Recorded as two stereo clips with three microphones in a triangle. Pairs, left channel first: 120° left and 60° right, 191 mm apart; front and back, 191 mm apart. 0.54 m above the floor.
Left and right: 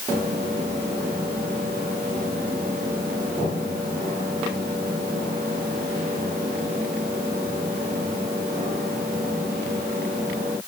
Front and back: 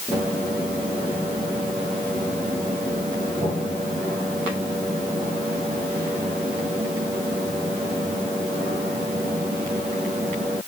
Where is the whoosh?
I don't hear a whoosh.